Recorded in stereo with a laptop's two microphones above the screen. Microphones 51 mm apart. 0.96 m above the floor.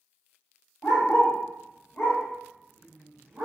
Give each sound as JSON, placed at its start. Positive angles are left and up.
{"t": 0.8, "sound": "a dog barking", "side_deg": 55, "distance_m": 1.2}